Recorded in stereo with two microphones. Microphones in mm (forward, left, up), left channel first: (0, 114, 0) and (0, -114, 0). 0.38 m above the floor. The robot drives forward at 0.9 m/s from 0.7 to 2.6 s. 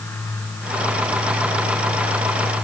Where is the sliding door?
I don't hear a sliding door.